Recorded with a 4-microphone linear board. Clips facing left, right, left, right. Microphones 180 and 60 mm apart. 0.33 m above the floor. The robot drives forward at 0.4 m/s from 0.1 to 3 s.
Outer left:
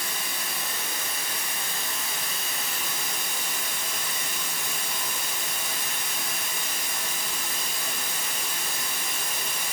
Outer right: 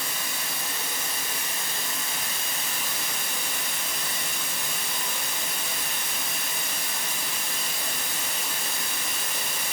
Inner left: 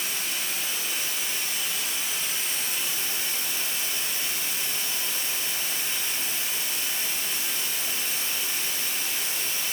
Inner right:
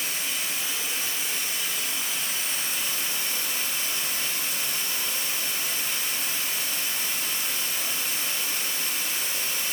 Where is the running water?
25° right (ahead or behind), 1.9 m; by 9.7 s 60° right (ahead or behind), 1.0 m.